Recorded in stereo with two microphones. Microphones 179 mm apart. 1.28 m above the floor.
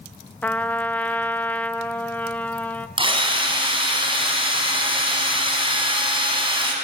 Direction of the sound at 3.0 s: 30° right (ahead or behind).